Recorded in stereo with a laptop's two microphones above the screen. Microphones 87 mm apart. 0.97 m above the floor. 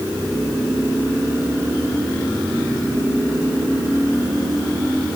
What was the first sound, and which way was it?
Only background noise.